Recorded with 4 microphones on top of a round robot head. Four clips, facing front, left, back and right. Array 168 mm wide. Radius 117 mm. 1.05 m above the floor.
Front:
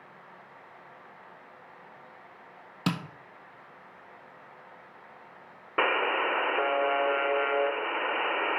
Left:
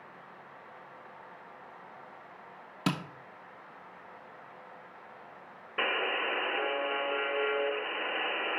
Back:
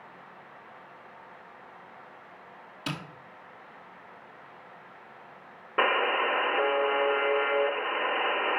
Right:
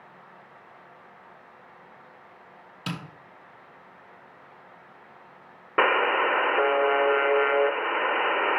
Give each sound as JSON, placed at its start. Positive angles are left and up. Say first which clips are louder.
{"t": 2.9, "sound": "tapping", "louder": "left 3 dB, front 6 dB", "azimuth_deg": 45, "distance_m": 1.2}
{"t": 5.8, "sound": "a buzzer", "louder": "right 10 dB, back 1 dB", "azimuth_deg": -95, "distance_m": 1.0}